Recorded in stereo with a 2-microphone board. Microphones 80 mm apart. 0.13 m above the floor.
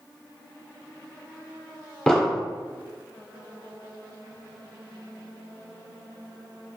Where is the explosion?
10° left (ahead or behind), 1.0 m.